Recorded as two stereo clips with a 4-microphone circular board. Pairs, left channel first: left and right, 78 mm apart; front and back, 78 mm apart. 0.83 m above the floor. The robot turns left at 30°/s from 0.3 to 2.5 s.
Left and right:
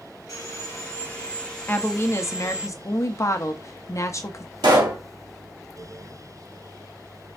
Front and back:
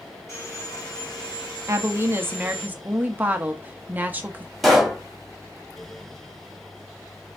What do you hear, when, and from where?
0.3 s sawing: 50° left, 1.7 m; by 2.7 s 20° right, 1.7 m
1.7 s a woman speaking: 145° left, 0.6 m; by 4.5 s 120° left, 0.6 m
4.6 s a pop: 90° right, 1.7 m